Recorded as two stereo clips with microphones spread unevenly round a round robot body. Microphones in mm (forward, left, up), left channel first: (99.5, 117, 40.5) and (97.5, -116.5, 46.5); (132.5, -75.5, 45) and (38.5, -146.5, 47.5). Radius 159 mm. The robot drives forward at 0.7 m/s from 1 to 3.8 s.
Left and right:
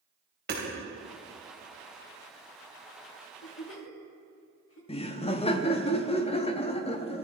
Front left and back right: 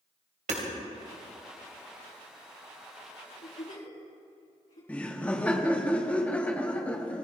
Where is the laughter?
100° left, 1.0 m.